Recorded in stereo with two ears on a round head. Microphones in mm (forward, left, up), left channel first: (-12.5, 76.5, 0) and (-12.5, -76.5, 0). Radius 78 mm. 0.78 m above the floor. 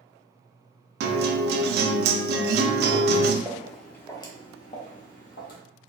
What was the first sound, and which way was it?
A guitar, 65° right (ahead or behind).